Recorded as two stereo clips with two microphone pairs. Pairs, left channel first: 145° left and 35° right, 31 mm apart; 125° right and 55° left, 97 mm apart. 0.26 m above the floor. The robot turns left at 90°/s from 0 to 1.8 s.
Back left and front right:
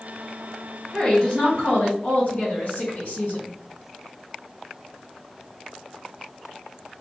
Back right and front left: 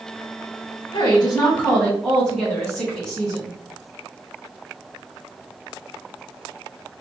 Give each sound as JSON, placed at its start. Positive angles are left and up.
{"t": 0.9, "sound": "a woman speaking", "azimuth_deg": -130, "distance_m": 1.8}